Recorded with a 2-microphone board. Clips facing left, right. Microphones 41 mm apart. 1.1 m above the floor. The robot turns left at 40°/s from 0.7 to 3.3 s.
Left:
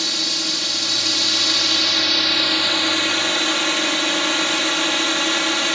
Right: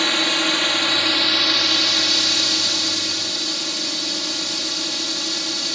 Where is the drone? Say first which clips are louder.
Right 5 dB; 130° right; by 5.8 s 125° left.